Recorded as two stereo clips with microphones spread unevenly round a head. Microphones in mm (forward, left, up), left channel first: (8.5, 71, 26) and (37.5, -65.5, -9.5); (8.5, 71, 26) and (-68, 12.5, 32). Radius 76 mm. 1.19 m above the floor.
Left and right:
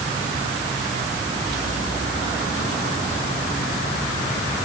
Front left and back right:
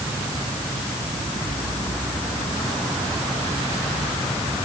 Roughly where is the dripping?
I don't hear dripping.